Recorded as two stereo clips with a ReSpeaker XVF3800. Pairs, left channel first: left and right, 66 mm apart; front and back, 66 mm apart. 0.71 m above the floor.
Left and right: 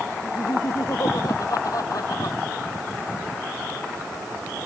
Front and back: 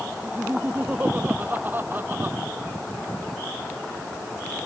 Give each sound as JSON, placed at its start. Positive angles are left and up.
{"t": 0.2, "sound": "laughter", "azimuth_deg": 115}